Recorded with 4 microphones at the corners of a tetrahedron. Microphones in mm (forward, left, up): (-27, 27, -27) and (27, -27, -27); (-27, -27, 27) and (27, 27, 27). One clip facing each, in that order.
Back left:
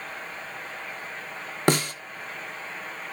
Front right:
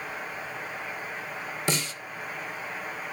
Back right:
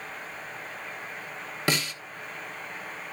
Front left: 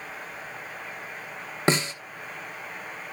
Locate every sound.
1.7 s a snare drum: 105° left, 1.1 m